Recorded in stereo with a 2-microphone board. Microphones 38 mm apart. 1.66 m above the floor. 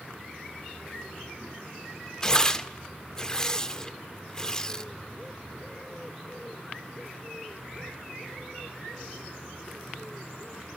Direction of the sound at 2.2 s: 20° left (ahead or behind).